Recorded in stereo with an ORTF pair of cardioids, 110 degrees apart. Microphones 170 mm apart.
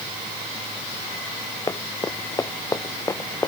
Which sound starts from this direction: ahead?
Running footsteps, at 1.7 s.